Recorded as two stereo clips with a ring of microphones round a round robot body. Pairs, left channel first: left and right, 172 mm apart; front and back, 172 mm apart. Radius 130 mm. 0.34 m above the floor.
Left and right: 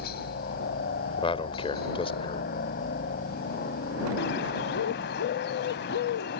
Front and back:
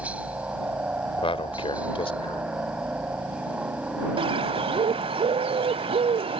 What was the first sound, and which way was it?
A helicopter, 100° left.